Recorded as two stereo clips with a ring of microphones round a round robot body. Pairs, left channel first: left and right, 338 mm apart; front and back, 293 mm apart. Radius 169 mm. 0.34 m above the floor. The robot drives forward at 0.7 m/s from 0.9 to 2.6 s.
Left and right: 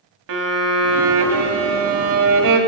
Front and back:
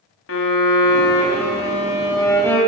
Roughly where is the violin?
Ahead right.